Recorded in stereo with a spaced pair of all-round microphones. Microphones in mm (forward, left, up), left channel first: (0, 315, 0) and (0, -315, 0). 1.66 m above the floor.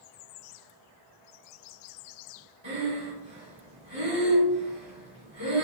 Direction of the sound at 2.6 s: 45° right (ahead or behind).